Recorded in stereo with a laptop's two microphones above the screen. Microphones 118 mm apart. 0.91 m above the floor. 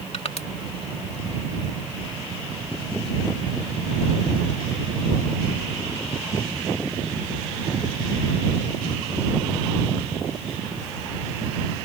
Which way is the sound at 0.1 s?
60° left (ahead or behind).